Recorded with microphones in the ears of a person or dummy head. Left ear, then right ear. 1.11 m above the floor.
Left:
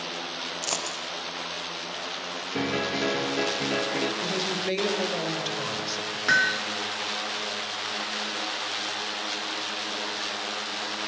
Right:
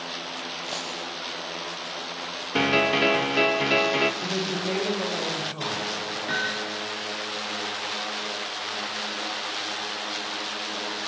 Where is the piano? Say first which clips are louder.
Right 7 dB; 45° right (ahead or behind), 1.6 m.